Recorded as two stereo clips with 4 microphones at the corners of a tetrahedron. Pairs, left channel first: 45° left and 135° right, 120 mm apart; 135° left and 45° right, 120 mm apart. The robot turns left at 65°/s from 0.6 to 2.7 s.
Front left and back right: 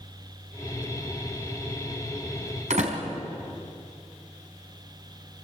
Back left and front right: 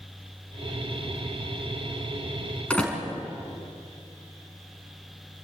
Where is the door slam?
145° right, 4 m.